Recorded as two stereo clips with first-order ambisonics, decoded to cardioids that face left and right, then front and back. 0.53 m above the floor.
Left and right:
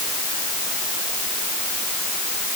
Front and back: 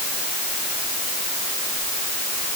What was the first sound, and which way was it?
Only background noise.